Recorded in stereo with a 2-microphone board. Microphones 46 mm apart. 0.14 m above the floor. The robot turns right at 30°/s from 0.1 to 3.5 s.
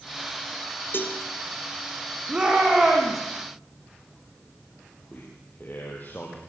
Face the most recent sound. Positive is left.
turn(degrees=40)  # may be behind; listen again after turning